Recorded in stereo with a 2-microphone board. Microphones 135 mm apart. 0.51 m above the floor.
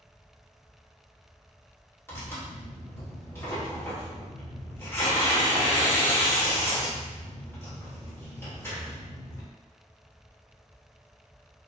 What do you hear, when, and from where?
2.1 s tearing paper: 20° left (ahead or behind), 1.4 m